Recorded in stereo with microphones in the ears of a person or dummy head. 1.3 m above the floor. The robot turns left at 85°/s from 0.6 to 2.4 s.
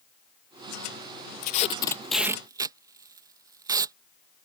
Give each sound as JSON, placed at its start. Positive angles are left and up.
{"t": 1.4, "sound": "tape being pulled", "side_deg": 55}